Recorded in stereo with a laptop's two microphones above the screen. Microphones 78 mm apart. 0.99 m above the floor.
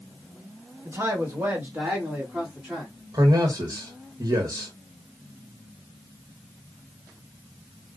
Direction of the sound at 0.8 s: 40° right (ahead or behind).